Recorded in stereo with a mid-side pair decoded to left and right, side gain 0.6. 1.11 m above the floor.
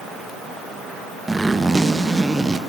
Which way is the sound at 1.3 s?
10° right.